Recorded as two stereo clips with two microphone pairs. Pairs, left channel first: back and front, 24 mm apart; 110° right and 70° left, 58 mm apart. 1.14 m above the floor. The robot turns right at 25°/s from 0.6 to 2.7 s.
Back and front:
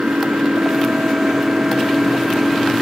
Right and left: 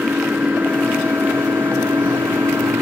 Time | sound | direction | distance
0.0 | an engine running | 20° left | ?